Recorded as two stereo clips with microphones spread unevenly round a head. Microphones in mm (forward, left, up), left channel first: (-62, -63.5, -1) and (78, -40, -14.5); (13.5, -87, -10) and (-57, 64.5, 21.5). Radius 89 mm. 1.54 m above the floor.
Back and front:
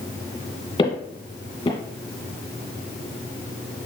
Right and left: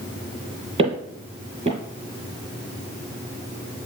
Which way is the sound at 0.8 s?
140° left.